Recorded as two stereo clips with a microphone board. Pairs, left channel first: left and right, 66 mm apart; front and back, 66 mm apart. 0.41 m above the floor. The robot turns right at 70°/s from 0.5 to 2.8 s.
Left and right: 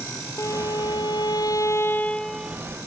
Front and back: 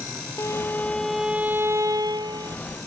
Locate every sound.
0.4 s a violin: 50° left; by 2.6 s 165° right